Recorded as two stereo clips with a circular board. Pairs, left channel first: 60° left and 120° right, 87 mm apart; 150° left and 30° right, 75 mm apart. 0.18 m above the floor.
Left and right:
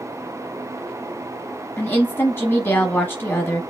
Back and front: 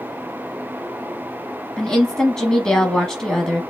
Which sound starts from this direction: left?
A woman speaking, at 1.8 s.